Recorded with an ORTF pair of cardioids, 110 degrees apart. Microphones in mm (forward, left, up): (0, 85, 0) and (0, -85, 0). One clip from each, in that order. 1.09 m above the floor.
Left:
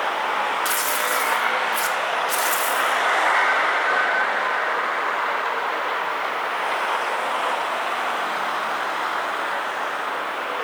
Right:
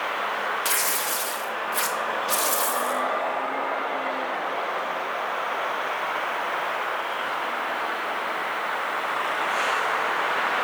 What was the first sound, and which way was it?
Tearing paper, 5° right.